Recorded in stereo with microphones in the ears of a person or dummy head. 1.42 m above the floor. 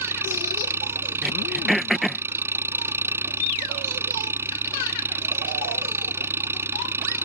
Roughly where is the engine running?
Centre.